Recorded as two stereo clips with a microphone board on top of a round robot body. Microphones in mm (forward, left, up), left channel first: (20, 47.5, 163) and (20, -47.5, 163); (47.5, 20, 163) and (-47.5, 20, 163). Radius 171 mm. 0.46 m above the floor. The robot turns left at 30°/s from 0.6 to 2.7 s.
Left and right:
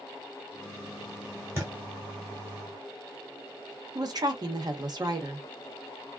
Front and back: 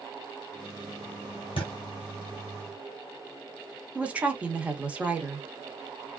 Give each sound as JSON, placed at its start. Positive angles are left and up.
{"t": 1.6, "sound": "a thud", "azimuth_deg": -25, "distance_m": 1.0}
{"t": 4.0, "sound": "a woman speaking", "azimuth_deg": -110, "distance_m": 1.2}